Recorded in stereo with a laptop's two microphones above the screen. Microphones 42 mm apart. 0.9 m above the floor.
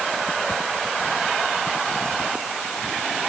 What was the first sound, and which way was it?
Only background noise.